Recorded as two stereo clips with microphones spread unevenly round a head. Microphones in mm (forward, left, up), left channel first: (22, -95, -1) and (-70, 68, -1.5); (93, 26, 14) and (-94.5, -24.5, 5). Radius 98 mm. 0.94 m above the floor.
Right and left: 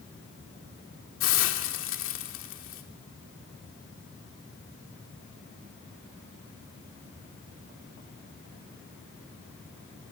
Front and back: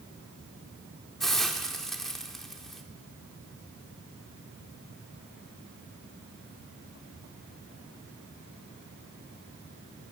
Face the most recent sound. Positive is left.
turn(degrees=-75)